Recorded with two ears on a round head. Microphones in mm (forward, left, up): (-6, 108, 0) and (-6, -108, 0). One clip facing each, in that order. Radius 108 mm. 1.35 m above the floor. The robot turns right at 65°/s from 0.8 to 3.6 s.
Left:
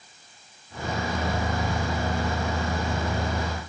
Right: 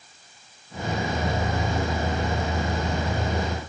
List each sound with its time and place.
Only background noise.